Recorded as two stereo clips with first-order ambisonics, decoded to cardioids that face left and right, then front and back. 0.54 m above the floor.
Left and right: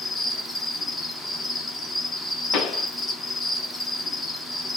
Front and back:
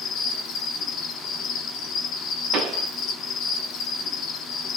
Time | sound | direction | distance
0.0 | an insect | 10° left | 1.0 m
2.5 | a pop | 135° left | 0.8 m